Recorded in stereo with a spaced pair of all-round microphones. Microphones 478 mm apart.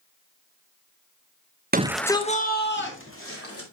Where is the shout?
20° right (ahead or behind), 0.6 m; by 3.6 s 25° left (ahead or behind), 3 m.